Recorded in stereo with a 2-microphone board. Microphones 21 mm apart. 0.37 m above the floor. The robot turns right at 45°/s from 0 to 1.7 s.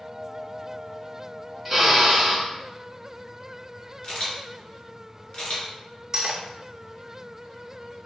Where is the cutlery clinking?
25° right (ahead or behind), 0.7 m.